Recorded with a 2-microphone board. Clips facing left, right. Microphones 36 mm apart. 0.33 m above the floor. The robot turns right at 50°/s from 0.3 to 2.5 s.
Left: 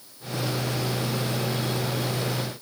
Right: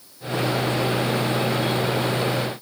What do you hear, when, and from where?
Only background noise.